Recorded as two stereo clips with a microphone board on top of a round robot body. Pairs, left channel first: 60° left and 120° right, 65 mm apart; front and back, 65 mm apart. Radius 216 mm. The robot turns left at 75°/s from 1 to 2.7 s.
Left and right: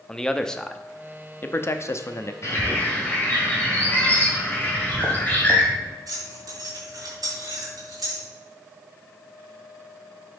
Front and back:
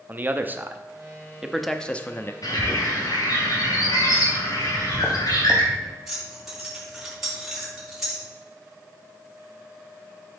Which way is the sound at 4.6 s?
90° right.